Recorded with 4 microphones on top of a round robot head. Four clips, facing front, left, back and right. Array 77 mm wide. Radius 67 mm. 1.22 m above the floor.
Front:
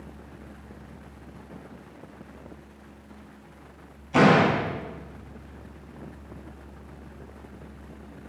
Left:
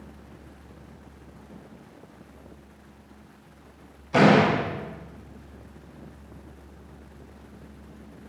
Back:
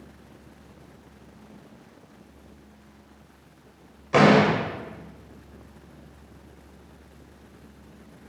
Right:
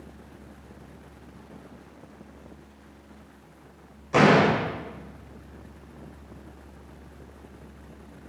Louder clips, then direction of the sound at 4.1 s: Even, back 1 dB; 160° right.